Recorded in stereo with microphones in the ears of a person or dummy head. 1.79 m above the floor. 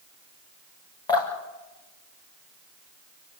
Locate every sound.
1.1 s dripping: 25° left (ahead or behind), 5.5 m